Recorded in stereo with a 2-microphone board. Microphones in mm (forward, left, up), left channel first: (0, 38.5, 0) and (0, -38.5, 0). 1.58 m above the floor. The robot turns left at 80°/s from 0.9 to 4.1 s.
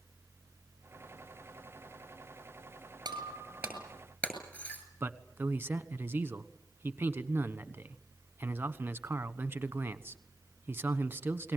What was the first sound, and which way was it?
Breaking glass, 65° right (ahead or behind).